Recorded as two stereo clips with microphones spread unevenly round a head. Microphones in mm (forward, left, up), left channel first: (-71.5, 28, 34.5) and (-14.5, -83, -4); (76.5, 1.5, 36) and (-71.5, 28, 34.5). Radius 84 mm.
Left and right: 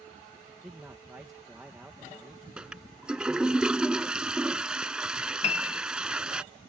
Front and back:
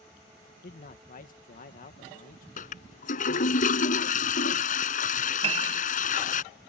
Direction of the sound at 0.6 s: 20° left.